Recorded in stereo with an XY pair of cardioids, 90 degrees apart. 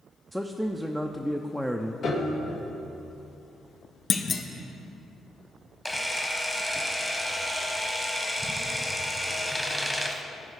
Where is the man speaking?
5° right, 0.6 m.